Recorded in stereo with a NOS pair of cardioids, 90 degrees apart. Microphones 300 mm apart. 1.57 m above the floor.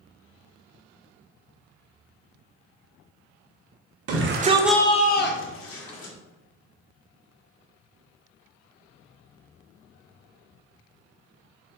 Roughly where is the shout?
Ahead right.